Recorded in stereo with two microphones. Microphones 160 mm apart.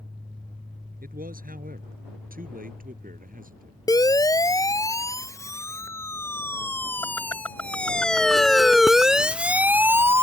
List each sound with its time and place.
1.0 s a man speaking: 65° right (ahead or behind); by 3.8 s 60° right (ahead or behind)
3.9 s a siren: 25° left (ahead or behind); by 10.2 s 15° right (ahead or behind)